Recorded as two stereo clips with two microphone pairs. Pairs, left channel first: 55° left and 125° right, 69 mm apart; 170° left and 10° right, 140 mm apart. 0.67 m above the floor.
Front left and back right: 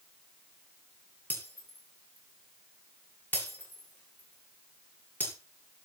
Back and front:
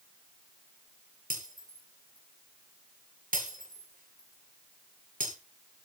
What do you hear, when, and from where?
1.3 s breaking glass: 10° right, 10 m